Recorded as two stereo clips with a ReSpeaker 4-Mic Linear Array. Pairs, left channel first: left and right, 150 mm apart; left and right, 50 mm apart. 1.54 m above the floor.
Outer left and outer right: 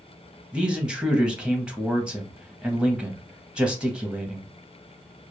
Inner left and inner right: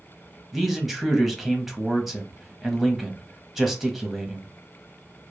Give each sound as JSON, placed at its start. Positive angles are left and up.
{"t": 0.5, "sound": "a man speaking", "side_deg": -5, "distance_m": 0.8}